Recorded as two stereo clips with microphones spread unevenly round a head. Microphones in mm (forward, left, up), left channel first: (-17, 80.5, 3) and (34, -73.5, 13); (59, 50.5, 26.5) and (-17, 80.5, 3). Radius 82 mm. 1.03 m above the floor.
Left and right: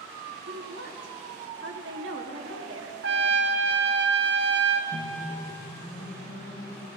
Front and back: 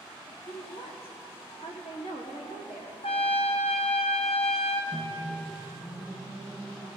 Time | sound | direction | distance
0.5 | a woman speaking | 60° right | 1.7 m
3.0 | a trumpet | 50° right | 0.7 m
4.9 | a microwave | 35° left | 5.5 m